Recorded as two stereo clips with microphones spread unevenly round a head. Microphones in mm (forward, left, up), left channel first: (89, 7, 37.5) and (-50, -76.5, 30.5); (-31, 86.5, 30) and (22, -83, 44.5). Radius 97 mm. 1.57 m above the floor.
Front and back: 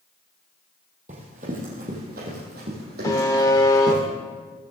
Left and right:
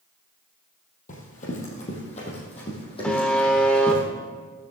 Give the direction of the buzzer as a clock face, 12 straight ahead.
11 o'clock.